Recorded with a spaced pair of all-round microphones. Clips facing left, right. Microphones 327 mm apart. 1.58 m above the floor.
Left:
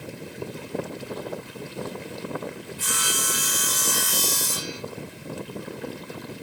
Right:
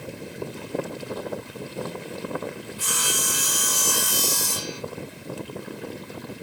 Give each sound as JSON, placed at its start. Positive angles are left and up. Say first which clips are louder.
{"t": 2.8, "sound": "sawing", "louder": "right 1 dB", "side_deg": -40, "distance_m": 1.6}